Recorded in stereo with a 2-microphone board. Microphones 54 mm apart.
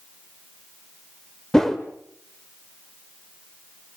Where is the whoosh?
10° left (ahead or behind), 1.3 m.